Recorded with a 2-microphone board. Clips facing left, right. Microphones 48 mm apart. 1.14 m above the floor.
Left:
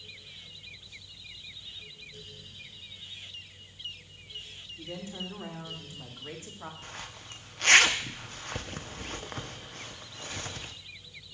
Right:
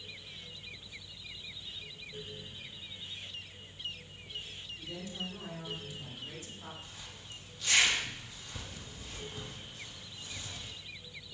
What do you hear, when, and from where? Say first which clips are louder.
4.8 s a woman speaking: left 3 dB; 40° left (ahead or behind), 3.5 m
6.8 s a zipper: left 6 dB; 60° left (ahead or behind), 0.9 m